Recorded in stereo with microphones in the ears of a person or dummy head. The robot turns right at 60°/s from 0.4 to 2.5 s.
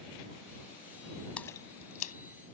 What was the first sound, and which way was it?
A splash, 5° left (ahead or behind).